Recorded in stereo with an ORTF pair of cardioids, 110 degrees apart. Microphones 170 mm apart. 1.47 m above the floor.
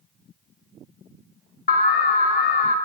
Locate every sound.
1.7 s an alarm: 60° left, 1.7 m